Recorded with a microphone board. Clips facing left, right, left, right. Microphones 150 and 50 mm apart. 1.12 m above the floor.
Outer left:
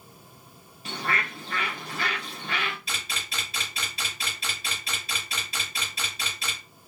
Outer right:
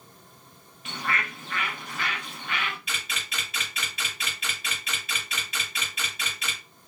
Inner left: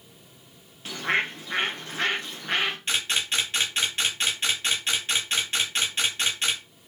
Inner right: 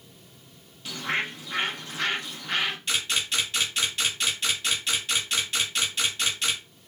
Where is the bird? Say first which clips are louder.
Outer left 1 dB, inner left 3 dB; 35° left (ahead or behind), 0.9 m.